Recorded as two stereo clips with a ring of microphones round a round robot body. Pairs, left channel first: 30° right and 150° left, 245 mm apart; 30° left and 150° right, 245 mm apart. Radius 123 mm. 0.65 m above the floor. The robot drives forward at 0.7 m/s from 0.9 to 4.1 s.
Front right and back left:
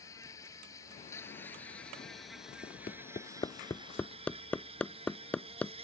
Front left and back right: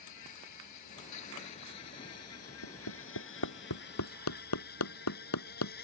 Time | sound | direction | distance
0.0 | an insect | 50° left | ?
2.6 | hammering | 35° left | ?